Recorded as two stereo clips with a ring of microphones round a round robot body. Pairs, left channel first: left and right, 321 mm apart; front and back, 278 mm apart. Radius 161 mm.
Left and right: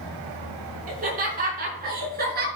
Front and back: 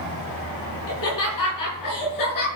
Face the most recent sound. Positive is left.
turn(degrees=-30)